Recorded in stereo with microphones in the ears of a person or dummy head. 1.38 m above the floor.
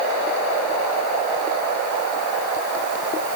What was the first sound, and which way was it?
Only background noise.